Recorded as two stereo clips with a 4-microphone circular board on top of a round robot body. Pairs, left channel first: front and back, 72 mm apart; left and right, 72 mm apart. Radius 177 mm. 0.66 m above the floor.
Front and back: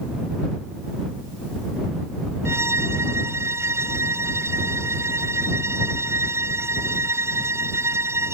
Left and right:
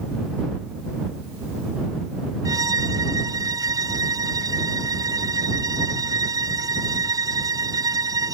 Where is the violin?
130° right.